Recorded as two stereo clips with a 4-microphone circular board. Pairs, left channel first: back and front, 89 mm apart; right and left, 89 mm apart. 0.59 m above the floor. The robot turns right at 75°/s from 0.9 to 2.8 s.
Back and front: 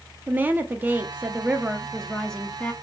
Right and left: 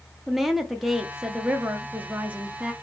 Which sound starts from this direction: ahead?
A woman speaking, at 0.3 s.